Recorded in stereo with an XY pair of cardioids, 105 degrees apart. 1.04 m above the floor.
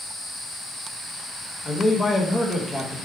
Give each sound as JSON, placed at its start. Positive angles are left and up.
{"t": 1.6, "sound": "a man speaking", "azimuth_deg": 30, "distance_m": 0.8}